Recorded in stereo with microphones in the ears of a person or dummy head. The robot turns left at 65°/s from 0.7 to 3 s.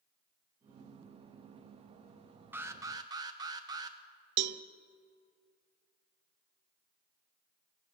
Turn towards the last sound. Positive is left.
turn(degrees=-70)  # may be behind; listen again after turning